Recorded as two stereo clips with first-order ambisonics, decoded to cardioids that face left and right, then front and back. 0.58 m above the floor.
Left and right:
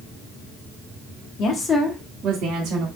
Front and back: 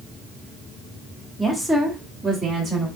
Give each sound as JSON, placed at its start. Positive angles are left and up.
{"t": 1.4, "sound": "a woman speaking", "azimuth_deg": 85, "distance_m": 0.7}